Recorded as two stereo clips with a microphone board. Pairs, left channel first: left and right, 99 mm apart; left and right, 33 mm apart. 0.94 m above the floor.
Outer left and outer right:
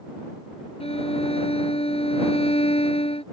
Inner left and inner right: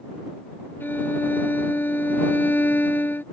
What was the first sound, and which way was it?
A violin, 80° left.